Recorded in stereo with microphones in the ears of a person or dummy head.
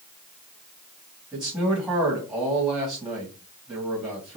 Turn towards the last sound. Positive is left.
turn(degrees=-5)  # may be behind; listen again after turning